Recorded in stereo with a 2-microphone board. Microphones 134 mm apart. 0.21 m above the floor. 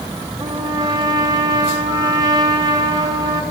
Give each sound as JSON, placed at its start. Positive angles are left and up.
{"t": 0.4, "sound": "a trumpet", "side_deg": -30, "distance_m": 1.5}